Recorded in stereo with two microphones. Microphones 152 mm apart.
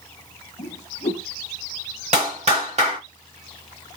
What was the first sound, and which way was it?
A whoosh, 50° left (ahead or behind).